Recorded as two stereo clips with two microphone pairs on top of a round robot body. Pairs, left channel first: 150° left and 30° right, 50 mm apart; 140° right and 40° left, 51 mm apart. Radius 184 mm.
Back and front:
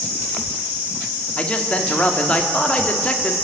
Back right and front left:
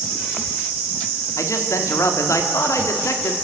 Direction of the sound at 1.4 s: 150° right.